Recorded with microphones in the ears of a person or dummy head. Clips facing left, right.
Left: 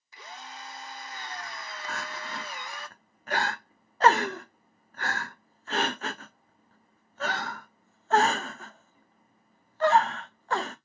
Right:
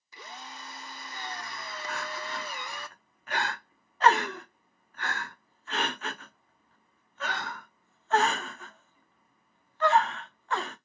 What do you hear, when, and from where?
0.1 s a drill: 85° right, 0.6 m
1.9 s crying: 35° left (ahead or behind), 0.5 m